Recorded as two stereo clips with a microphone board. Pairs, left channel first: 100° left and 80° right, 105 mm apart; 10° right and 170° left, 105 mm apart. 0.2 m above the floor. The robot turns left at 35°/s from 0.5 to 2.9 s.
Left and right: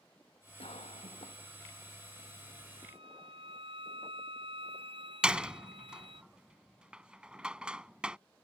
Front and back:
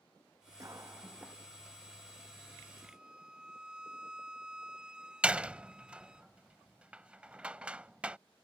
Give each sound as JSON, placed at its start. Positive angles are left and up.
{"t": 0.6, "sound": "a cough", "azimuth_deg": 115}
{"t": 2.8, "sound": "a violin", "azimuth_deg": -105}
{"t": 5.2, "sound": "a door slam", "azimuth_deg": -135}